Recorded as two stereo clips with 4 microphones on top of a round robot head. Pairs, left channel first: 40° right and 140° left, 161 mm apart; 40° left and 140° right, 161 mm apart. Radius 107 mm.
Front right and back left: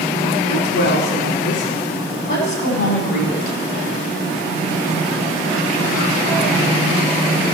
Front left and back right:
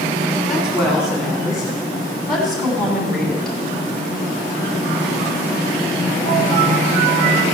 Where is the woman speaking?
50° right, 6 m; by 3.6 s 45° right, 4 m.